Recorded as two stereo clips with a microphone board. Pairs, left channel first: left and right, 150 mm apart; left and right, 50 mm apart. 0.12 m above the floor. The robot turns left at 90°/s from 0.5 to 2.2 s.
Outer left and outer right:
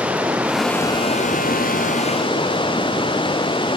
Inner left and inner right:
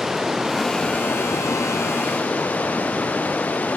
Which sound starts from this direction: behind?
Running water, at 0.0 s.